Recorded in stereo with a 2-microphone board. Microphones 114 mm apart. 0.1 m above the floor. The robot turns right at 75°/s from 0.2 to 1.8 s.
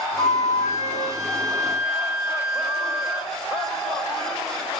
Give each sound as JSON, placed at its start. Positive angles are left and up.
{"t": 0.2, "sound": "a flute", "azimuth_deg": 180, "distance_m": 1.4}